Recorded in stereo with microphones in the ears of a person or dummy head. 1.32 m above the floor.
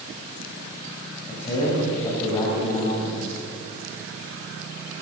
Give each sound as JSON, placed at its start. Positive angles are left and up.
{"t": 1.3, "sound": "a man speaking", "side_deg": 25, "distance_m": 7.0}